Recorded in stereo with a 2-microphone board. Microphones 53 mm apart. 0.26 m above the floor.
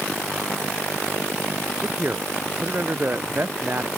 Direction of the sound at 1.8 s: 40° right (ahead or behind).